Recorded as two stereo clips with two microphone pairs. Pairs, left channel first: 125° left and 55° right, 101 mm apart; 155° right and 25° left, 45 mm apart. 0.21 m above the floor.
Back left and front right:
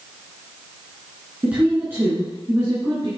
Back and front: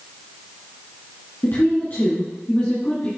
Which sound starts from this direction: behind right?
A woman speaking, at 1.4 s.